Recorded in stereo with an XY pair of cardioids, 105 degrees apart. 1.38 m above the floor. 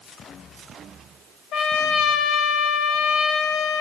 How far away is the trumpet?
About 5 m.